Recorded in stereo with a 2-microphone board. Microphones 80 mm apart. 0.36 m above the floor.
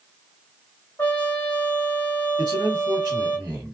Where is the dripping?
No dripping in this recording.